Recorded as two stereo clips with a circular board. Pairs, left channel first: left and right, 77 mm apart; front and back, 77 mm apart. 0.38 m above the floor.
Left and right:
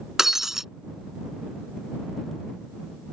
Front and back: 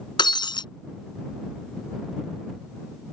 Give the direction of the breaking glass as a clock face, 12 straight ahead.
12 o'clock.